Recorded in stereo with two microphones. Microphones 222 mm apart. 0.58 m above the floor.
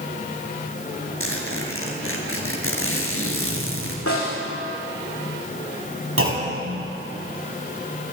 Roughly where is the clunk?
Right.